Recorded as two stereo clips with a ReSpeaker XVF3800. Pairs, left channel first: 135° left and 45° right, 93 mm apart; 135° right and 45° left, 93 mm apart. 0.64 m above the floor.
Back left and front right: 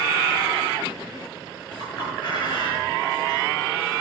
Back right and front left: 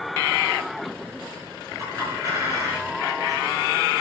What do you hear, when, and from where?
1.8 s a clink: 100° left, 8.5 m